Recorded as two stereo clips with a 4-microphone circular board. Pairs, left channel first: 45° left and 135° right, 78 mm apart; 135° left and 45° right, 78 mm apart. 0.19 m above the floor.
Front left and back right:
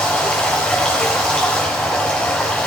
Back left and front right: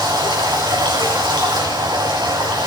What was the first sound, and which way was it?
Running water, 30° right.